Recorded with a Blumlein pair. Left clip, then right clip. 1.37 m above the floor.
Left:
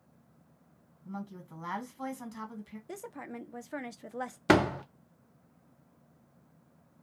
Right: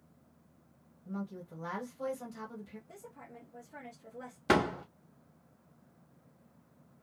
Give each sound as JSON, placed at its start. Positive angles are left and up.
{"t": 1.1, "sound": "a woman speaking", "azimuth_deg": 70, "distance_m": 1.2}
{"t": 2.9, "sound": "a woman speaking", "azimuth_deg": 40, "distance_m": 0.5}
{"t": 4.5, "sound": "a door slam", "azimuth_deg": 20, "distance_m": 0.5}